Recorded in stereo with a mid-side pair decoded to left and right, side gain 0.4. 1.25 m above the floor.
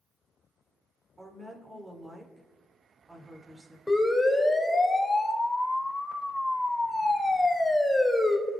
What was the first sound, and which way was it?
A woman speaking, 20° right.